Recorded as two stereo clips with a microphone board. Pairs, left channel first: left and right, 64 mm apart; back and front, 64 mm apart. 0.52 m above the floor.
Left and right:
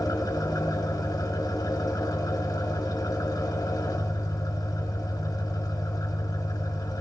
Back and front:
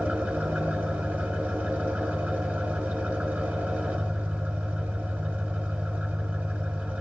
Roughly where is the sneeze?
I don't hear a sneeze.